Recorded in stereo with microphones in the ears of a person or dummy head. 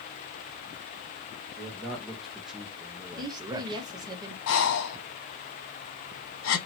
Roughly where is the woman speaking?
Right.